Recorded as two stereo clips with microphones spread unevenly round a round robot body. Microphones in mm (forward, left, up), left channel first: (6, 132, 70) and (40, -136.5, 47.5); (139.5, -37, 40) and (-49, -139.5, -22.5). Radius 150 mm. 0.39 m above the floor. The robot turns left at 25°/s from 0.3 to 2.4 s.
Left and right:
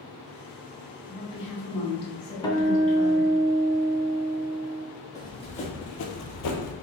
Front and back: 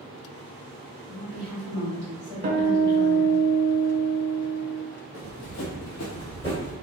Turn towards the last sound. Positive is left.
turn(degrees=100)